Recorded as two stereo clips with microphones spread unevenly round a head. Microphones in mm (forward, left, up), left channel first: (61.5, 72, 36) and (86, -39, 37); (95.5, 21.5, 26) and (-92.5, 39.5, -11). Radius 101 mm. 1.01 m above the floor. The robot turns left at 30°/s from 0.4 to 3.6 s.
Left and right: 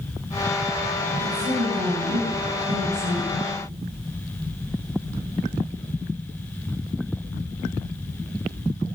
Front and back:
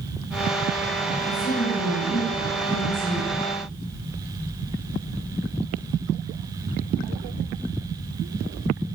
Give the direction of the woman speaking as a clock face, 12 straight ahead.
2 o'clock.